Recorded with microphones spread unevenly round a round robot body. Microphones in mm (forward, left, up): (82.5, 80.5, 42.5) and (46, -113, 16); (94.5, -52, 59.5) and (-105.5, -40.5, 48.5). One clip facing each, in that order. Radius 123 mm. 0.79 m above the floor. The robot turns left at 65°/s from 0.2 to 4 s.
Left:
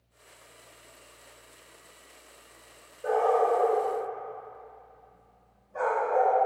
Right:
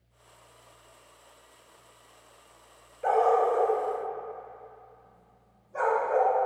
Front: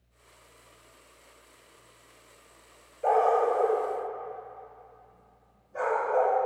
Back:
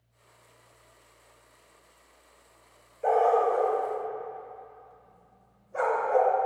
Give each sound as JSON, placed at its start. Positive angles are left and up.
{"t": 3.0, "sound": "a dog barking", "azimuth_deg": -95, "distance_m": 1.2}